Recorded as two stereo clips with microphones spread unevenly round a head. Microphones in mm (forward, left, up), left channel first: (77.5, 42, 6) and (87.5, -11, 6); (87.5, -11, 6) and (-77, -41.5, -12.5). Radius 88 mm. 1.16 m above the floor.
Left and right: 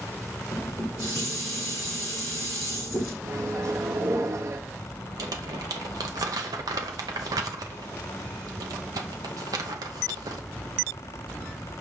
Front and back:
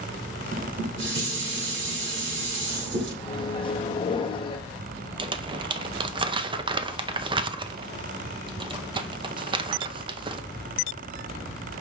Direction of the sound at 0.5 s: 150° right.